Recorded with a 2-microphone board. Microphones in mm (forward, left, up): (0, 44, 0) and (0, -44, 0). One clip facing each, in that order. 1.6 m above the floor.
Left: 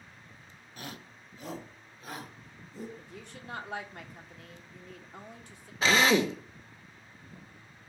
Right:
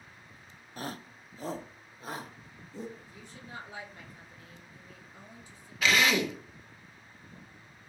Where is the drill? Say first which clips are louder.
Left 3 dB; 35° left (ahead or behind), 1.1 m.